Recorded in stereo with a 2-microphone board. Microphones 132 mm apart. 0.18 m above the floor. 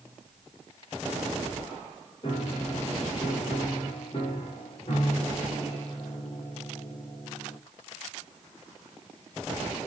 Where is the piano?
45° left (ahead or behind), 3.5 m.